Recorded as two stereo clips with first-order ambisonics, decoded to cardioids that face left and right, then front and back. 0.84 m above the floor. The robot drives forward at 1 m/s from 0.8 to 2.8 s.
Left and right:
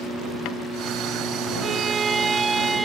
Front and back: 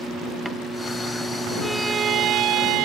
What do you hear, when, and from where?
1.6 s a violin: 65° right; by 2.9 s 170° right